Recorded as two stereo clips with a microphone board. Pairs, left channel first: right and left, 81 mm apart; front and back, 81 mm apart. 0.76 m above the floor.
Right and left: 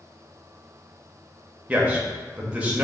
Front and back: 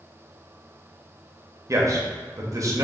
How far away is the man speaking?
About 0.8 m.